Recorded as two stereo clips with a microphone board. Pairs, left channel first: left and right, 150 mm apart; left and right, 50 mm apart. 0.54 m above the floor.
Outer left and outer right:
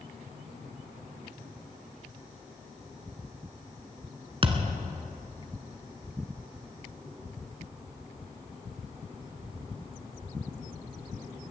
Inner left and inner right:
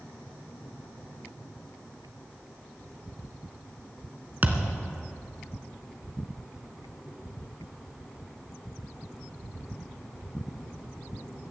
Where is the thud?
35° right (ahead or behind), 1.4 m.